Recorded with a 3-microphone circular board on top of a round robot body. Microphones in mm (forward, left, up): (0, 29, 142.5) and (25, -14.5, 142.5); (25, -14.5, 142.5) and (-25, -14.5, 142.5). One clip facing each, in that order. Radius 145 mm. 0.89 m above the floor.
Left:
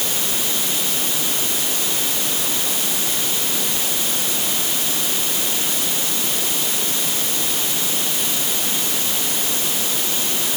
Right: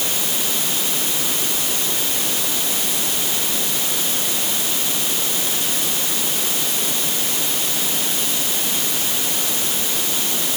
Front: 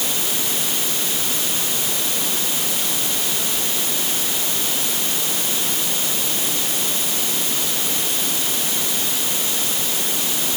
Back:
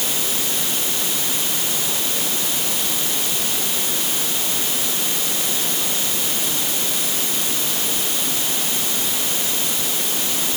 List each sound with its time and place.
Only background noise.